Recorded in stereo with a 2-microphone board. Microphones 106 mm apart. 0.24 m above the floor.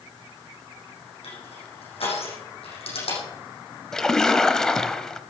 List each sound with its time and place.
1.2 s crushing: 75° left (ahead or behind), 7 m
3.9 s a splash: 5° left (ahead or behind), 0.8 m